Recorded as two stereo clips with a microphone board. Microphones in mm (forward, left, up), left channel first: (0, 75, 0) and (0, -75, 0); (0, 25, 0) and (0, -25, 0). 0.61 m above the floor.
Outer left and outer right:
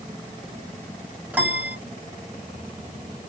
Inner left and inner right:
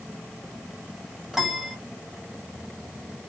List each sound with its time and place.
1.3 s a piano: 10° right (ahead or behind), 1.4 m